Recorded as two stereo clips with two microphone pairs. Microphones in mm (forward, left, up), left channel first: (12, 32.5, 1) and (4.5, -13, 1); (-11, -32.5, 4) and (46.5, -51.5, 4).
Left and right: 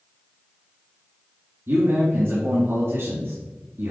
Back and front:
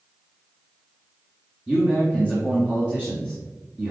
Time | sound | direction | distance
1.7 | a man speaking | 80° right | 2 m